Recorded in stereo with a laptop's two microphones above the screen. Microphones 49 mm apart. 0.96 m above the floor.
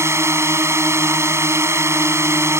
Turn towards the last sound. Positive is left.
turn(degrees=-65)  # may be behind; listen again after turning